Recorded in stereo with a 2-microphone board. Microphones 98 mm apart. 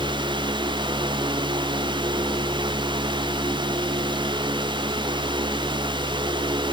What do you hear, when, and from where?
Only background noise.